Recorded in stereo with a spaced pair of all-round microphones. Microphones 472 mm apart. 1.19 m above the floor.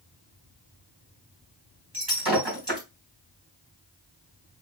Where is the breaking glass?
60° right (ahead or behind), 3 m.